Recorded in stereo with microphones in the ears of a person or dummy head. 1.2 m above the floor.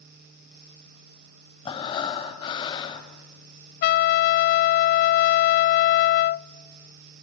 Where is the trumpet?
55° left (ahead or behind), 0.5 m.